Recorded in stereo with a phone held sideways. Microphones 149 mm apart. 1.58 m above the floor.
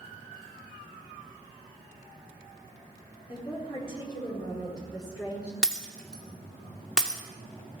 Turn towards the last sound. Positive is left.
turn(degrees=5)  # may be behind; listen again after turning